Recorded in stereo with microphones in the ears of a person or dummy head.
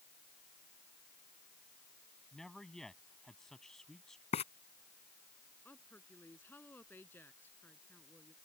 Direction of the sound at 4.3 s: 35° left (ahead or behind).